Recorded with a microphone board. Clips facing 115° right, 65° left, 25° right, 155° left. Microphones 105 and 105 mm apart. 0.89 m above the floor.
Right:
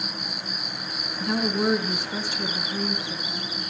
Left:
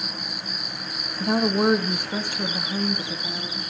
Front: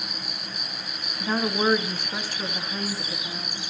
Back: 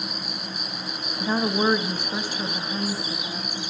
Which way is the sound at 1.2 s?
80° left.